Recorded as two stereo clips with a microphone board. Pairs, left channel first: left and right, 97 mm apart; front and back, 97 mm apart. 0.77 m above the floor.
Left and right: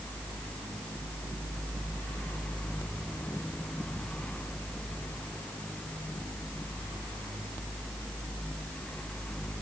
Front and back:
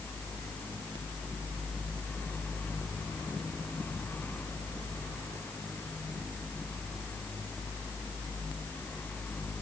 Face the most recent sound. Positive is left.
No sound to turn to.